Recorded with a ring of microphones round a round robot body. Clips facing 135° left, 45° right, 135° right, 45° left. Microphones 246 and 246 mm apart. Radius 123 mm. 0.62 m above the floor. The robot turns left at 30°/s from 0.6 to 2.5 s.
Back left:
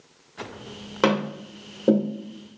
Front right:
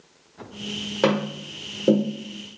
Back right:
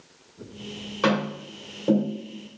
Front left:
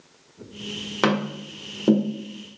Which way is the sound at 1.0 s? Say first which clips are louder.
Even, front left 1 dB; 60° left.